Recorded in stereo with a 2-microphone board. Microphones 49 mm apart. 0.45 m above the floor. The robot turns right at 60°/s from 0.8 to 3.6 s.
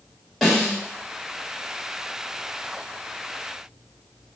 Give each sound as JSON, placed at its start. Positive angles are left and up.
{"t": 0.4, "sound": "a snare drum", "side_deg": 10, "distance_m": 1.7}